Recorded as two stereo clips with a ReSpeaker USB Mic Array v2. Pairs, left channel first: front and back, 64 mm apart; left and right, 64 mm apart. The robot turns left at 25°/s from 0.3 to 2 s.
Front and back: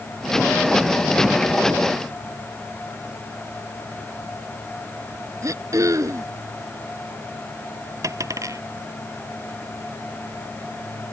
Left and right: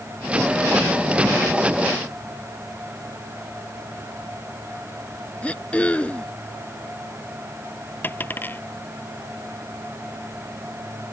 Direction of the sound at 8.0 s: 150° left.